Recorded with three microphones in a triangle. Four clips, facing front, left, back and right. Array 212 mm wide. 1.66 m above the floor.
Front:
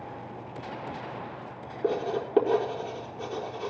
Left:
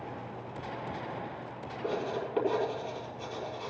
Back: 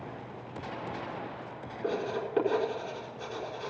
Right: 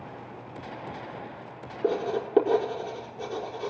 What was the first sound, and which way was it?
Writing, 60° right.